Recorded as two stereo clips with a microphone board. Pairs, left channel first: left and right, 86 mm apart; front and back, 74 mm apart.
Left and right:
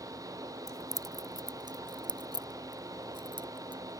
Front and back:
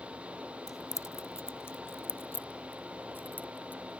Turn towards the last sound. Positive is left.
turn(degrees=-65)